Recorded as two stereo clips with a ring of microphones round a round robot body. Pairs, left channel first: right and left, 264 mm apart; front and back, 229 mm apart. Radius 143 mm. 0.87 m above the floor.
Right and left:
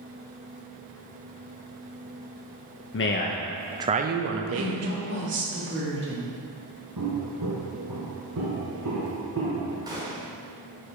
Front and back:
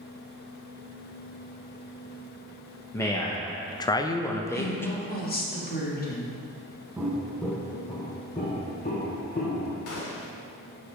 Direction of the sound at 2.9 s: 75° right.